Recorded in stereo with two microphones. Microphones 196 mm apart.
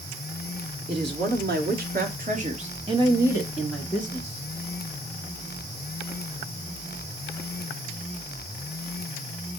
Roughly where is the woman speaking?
Right.